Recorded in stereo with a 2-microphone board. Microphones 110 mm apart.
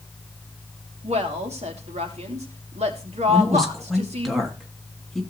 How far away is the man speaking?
About 3 m.